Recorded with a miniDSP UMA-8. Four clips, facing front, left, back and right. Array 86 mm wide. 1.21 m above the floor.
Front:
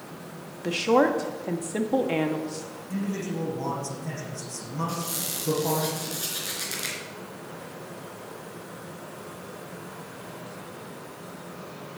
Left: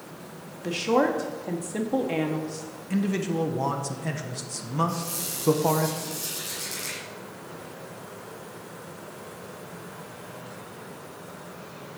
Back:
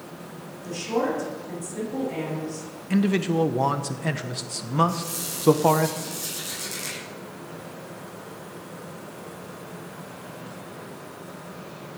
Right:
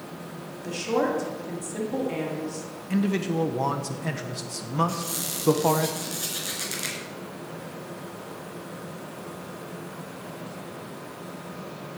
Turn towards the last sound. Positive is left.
turn(degrees=-50)